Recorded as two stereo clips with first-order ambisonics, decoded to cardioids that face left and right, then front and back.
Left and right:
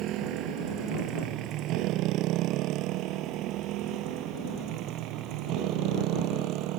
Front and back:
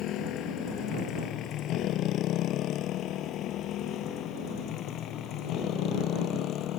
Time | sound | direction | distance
0.0 | a motorcycle | 50° right | ?